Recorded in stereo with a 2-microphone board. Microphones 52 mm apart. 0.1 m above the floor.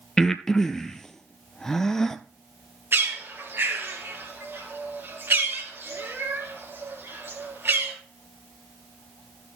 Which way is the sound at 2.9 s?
50° right (ahead or behind).